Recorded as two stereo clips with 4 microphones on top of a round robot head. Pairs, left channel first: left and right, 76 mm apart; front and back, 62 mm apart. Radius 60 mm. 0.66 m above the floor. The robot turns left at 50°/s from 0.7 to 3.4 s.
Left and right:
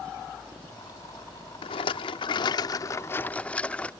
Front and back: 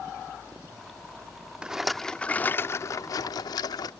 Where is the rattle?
105° left; by 3.9 s 15° left.